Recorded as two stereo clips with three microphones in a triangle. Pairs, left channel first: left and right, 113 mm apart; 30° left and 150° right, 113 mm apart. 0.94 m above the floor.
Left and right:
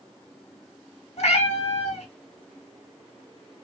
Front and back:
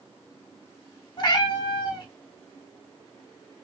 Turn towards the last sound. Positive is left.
turn(degrees=75)